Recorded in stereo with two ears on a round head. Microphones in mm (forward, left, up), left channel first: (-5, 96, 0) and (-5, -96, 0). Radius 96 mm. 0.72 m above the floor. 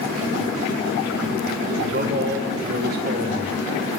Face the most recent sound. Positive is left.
turn(degrees=-45)  # may be behind; listen again after turning